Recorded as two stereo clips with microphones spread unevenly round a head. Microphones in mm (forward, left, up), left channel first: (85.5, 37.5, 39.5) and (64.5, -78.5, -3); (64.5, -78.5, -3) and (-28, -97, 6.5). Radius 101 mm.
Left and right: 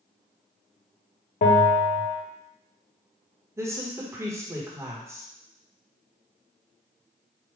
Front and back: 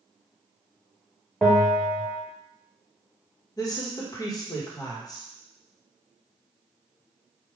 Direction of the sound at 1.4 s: 100° left.